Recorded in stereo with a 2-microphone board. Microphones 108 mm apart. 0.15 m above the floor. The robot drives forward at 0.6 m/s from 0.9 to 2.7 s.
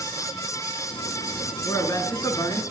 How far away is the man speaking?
About 2 m.